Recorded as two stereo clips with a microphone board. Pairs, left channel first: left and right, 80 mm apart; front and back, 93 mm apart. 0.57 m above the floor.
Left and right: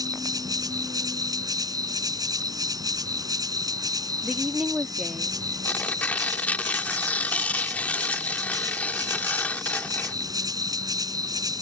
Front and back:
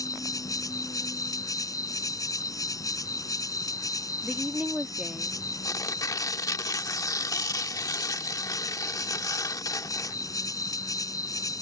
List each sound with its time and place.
0.0 s an insect: 50° right
4.2 s a woman speaking: 140° right
5.7 s tearing paper: 25° left